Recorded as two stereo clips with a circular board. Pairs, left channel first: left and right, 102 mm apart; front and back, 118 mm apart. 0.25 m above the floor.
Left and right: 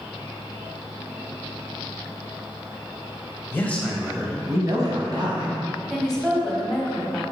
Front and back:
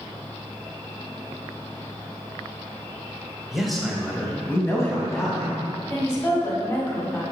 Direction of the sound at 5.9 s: 10° left.